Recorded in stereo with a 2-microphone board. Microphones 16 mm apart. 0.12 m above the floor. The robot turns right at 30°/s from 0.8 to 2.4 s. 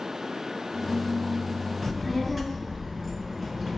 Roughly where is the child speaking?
Centre.